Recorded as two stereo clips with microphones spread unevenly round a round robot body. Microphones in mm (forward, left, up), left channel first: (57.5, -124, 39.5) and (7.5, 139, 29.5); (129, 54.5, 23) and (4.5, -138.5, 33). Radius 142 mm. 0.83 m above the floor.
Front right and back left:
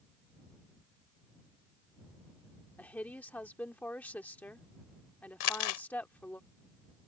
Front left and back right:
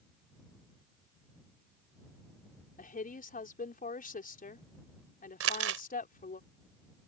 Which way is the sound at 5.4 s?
100° right.